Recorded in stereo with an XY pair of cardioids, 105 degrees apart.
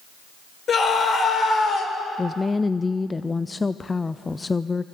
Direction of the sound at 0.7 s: 45° left.